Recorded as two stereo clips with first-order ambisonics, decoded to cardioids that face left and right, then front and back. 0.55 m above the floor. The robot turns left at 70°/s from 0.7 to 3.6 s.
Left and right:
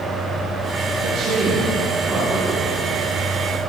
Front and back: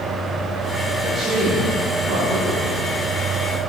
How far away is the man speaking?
About 4.5 m.